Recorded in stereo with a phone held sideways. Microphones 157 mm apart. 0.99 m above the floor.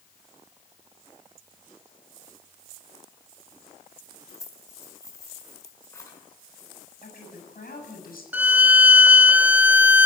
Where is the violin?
10° right (ahead or behind), 0.7 m.